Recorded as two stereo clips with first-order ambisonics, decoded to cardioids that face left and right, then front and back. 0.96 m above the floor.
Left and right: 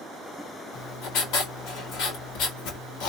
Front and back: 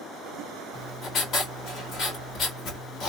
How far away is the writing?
About 1.9 m.